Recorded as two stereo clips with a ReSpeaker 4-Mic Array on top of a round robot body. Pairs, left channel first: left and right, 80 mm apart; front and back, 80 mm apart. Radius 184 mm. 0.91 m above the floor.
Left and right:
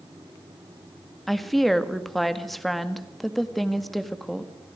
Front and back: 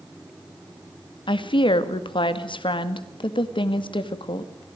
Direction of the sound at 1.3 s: Straight ahead.